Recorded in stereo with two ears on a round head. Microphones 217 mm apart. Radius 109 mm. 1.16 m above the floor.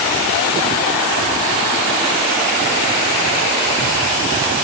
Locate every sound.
Only background noise.